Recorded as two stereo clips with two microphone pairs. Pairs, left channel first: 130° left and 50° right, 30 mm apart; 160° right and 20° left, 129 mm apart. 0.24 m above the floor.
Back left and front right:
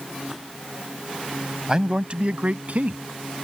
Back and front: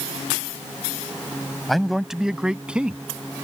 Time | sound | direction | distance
1.7 | a man speaking | 70° right | ?